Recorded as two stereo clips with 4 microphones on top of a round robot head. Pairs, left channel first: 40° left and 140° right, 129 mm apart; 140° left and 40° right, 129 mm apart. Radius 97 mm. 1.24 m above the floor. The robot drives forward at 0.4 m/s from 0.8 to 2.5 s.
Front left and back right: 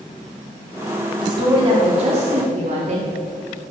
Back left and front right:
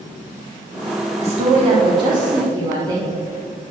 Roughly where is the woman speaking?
Right.